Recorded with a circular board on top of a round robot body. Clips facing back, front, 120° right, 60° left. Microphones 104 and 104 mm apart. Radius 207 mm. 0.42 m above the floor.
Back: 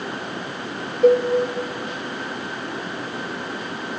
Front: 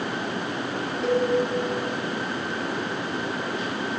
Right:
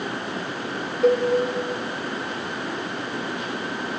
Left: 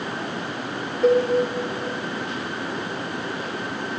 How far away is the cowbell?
About 2.5 m.